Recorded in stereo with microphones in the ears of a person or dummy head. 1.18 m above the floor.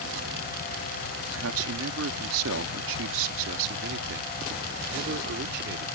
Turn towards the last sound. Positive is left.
turn(degrees=-60)  # may be behind; listen again after turning